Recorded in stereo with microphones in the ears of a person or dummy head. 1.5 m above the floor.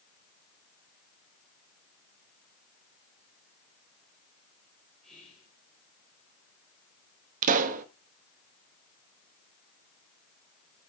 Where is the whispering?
10° left (ahead or behind), 3.5 m.